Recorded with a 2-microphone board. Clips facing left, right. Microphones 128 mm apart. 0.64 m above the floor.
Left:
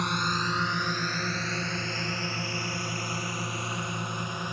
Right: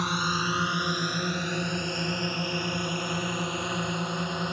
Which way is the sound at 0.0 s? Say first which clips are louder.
Right 1 dB; 5° right (ahead or behind).